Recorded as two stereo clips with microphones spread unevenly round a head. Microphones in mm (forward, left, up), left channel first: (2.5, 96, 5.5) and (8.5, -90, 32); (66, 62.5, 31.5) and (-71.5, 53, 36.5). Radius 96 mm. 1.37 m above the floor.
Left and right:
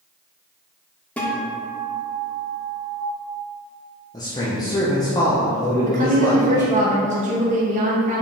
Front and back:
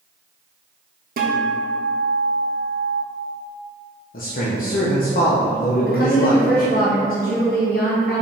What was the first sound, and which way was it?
A guitar, straight behind.